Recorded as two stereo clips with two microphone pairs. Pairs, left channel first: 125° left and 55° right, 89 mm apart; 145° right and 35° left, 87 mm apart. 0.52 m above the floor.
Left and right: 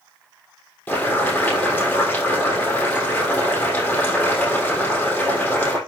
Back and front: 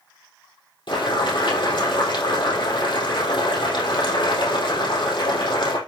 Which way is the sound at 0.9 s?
165° right.